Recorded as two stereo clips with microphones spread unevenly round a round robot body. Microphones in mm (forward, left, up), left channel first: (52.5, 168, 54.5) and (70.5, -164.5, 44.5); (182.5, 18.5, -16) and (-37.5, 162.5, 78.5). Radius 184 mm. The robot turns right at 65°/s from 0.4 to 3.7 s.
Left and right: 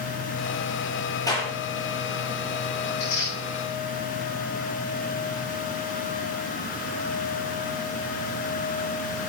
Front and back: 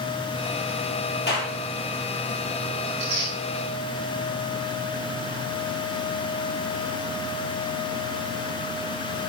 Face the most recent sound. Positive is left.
turn(degrees=175)